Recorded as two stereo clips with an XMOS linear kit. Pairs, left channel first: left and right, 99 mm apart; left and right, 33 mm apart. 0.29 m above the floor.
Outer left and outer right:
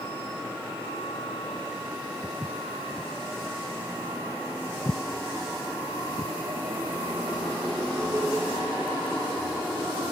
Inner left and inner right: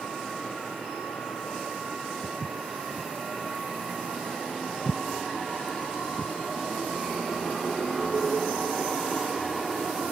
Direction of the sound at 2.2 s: 15° left (ahead or behind).